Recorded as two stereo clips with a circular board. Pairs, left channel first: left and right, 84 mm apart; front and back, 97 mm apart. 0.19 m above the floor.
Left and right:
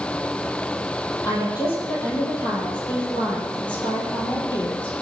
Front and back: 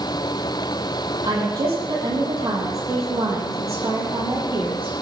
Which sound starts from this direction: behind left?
A woman speaking, at 1.2 s.